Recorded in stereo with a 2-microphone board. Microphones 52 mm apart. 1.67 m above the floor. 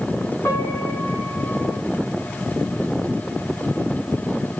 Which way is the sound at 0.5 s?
60° left (ahead or behind).